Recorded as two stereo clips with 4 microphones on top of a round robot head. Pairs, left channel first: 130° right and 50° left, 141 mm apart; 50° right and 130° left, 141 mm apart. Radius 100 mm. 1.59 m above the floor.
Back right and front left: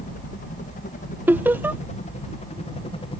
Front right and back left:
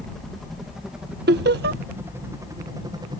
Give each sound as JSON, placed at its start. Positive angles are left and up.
{"t": 0.0, "sound": "a helicopter", "azimuth_deg": -135}
{"t": 1.3, "sound": "laughter", "azimuth_deg": 125}